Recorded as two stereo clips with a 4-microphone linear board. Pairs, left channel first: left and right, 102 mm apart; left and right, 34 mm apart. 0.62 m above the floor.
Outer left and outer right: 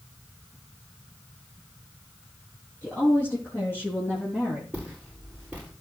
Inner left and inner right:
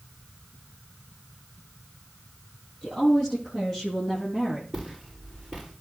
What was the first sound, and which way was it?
A woman speaking, 15° left (ahead or behind).